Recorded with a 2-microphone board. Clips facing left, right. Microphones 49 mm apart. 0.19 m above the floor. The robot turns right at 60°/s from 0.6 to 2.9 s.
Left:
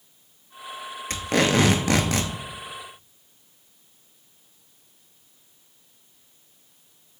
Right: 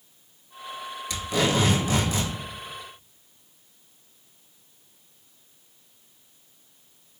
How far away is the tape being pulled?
About 0.5 m.